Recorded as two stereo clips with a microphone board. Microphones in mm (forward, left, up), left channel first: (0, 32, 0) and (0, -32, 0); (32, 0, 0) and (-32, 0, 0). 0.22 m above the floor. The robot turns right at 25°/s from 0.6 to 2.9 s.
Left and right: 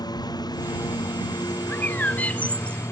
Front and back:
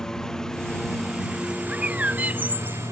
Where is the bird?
120° left; by 2.8 s 145° left.